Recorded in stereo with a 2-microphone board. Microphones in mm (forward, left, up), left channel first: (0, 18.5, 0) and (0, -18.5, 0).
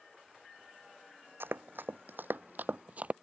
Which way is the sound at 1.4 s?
70° right (ahead or behind).